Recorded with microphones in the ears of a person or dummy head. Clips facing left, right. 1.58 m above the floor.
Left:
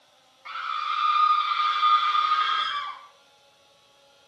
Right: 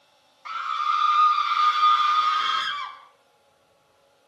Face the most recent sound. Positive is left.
turn(degrees=-75)  # may be behind; listen again after turning